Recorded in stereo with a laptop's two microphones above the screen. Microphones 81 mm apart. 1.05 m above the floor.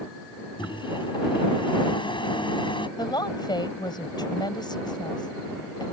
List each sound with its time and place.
0.6 s a microwave: 80° left
3.0 s a woman speaking: 65° left (ahead or behind)